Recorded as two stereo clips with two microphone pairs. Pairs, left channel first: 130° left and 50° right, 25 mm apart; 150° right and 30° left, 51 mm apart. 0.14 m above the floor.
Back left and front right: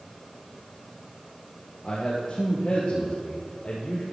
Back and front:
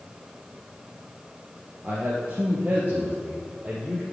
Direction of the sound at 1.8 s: 85° left.